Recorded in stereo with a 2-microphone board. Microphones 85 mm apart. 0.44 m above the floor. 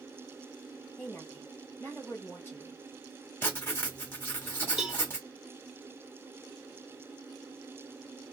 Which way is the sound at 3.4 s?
25° left (ahead or behind).